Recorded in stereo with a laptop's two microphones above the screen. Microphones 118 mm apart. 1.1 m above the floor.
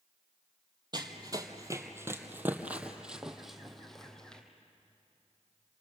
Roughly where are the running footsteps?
Right.